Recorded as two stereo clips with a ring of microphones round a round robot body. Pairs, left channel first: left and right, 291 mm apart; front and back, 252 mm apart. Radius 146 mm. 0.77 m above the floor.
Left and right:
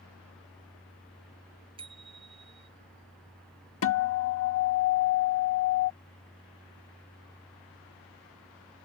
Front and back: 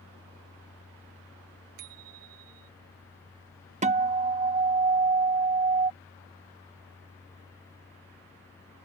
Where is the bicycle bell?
165° right.